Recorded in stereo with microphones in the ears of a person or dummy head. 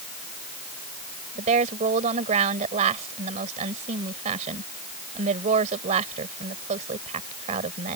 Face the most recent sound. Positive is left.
turn(degrees=-35)  # may be behind; listen again after turning